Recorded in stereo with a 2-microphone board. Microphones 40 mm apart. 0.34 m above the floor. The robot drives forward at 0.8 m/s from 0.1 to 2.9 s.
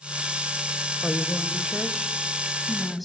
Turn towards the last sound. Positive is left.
turn(degrees=0)  # may be behind; listen again after turning